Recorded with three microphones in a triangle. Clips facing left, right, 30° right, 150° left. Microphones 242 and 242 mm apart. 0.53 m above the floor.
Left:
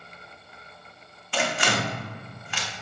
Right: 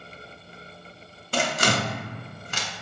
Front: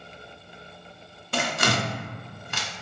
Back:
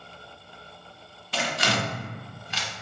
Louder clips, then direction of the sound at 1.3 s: Right 2 dB, front 2 dB; 50° right.